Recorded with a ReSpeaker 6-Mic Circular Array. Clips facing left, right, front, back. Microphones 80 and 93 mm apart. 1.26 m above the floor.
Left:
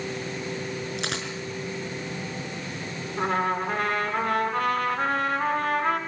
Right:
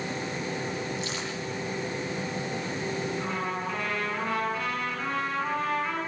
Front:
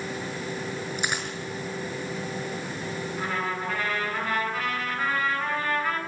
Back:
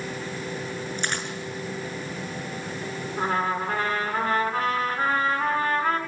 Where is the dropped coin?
80° left, 6 m.